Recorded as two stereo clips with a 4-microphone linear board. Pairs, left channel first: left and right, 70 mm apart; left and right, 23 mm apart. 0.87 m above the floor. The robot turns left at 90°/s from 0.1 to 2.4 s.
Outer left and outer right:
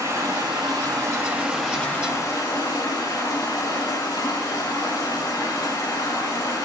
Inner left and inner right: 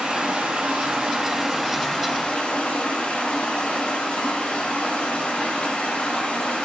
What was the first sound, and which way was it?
Running water, 40° right.